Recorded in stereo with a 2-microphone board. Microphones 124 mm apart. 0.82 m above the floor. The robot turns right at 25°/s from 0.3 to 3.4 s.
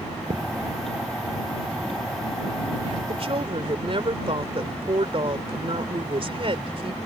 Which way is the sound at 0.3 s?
75° right (ahead or behind).